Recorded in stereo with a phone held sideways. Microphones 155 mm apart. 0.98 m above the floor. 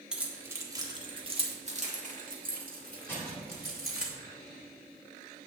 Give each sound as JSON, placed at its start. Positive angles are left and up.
{"t": 0.1, "sound": "keys jangling", "side_deg": -5, "distance_m": 1.5}
{"t": 3.1, "sound": "crushing", "side_deg": 15, "distance_m": 3.0}